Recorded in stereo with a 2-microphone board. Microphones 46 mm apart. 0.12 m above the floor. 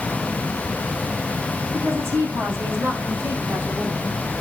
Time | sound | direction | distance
1.7 | a woman speaking | 70° right (ahead or behind) | 8.5 m